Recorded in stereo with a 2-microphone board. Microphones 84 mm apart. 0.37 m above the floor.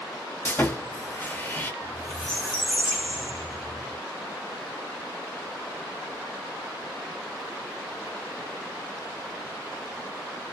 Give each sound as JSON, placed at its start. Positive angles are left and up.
{"t": 0.5, "sound": "sawing", "side_deg": 25, "distance_m": 0.6}
{"t": 1.8, "sound": "a squeak", "side_deg": 10, "distance_m": 1.3}